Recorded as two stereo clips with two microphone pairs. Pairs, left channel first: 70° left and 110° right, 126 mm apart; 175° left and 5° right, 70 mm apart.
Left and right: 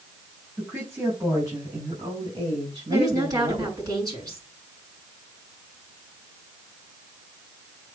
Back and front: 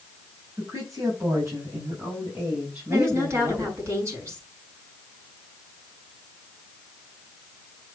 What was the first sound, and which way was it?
A woman speaking, 40° right.